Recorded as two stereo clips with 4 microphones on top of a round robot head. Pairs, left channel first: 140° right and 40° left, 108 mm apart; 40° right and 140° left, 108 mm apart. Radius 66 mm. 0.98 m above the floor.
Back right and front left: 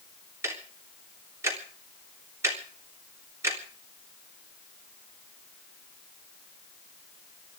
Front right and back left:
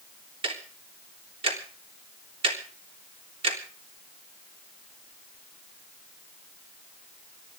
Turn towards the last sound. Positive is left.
turn(degrees=105)